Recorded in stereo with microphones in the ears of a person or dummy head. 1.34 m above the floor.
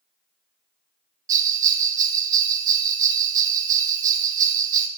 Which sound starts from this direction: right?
A bell, at 1.3 s.